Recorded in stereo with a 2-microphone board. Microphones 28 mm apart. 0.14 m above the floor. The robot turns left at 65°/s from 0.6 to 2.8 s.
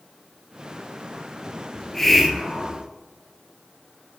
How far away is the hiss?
About 0.9 m.